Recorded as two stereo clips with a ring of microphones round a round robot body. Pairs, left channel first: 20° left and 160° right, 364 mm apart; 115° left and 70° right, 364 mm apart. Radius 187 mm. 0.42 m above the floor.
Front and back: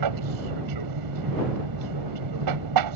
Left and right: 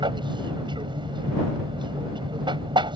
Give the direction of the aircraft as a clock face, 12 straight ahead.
5 o'clock.